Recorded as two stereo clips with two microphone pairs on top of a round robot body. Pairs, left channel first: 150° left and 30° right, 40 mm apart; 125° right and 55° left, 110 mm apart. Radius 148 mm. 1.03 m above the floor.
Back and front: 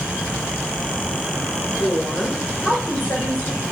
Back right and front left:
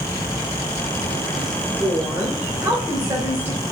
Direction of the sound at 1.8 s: 125° left.